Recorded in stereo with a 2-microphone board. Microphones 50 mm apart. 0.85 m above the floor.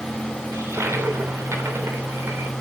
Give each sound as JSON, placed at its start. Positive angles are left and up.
{"t": 0.5, "sound": "a toilet flushing", "side_deg": -70, "distance_m": 3.0}